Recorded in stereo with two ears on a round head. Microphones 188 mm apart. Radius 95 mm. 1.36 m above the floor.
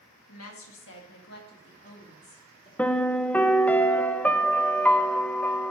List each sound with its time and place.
0.3 s a woman speaking: 75° left (ahead or behind), 1.9 m; by 2.7 s 25° left (ahead or behind), 2.5 m
2.8 s a piano: 5° left (ahead or behind), 0.5 m